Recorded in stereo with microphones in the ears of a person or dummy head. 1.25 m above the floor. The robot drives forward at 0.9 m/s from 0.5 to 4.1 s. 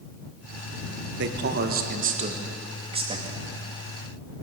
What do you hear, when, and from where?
1.2 s a man speaking: 65° right (ahead or behind), 1.6 m; by 3.4 s 30° right (ahead or behind), 3 m